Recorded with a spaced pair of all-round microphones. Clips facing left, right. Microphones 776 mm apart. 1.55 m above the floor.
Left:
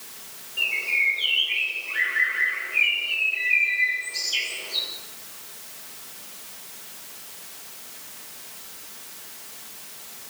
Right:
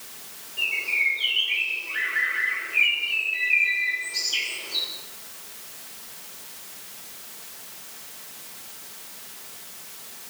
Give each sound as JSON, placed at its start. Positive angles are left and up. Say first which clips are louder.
{"t": 0.6, "sound": "a bird", "louder": "left 1 dB", "side_deg": 20, "distance_m": 6.5}